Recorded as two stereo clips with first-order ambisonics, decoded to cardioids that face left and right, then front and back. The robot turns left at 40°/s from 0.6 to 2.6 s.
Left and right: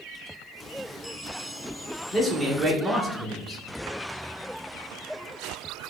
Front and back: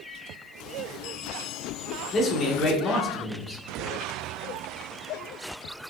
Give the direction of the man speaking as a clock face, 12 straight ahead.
12 o'clock.